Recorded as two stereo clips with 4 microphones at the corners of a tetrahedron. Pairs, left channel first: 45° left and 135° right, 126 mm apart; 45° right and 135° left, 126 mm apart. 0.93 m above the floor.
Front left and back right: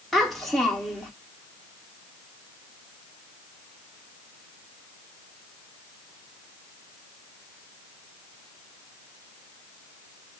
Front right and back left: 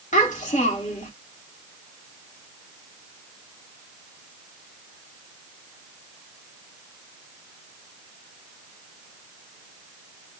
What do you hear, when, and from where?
0.1 s a child speaking: 40° right, 1.1 m